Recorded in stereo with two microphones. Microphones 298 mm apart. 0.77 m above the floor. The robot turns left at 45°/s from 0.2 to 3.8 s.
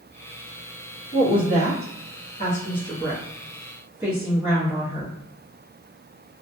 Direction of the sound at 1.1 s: 30° left (ahead or behind).